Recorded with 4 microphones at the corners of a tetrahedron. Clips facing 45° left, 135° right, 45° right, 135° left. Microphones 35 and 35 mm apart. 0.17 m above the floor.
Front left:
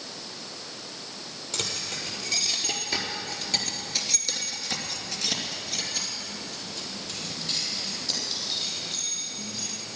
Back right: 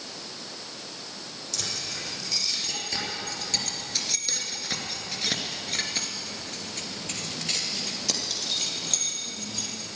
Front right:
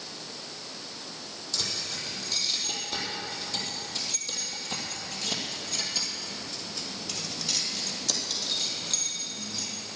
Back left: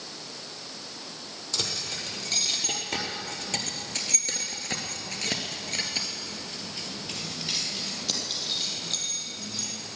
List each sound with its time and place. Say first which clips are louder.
1.5 s keys jangling: front left 2 dB, back left 1 dB; 100° left, 4 m; by 9.7 s 140° right, 5 m